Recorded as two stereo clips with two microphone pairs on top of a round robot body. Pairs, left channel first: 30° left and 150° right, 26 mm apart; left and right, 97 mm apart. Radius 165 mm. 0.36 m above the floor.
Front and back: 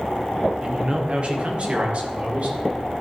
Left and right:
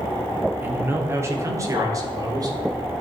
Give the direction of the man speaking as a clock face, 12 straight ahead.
5 o'clock.